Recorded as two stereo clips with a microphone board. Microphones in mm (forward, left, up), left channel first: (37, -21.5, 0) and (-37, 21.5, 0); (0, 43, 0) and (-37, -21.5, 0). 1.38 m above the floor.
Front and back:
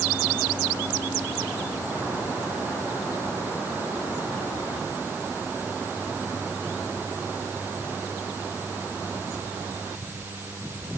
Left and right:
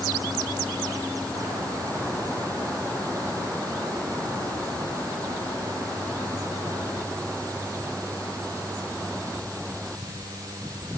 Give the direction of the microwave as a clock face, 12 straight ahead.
I don't hear a microwave.